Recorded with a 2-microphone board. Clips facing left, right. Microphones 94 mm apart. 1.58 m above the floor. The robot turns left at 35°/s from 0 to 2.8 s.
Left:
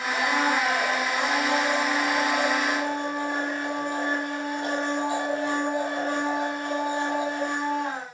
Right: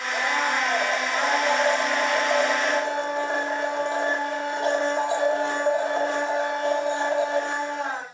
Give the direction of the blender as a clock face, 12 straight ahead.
12 o'clock.